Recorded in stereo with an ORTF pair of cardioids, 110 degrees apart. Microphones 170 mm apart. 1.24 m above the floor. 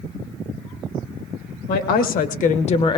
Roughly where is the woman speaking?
Left.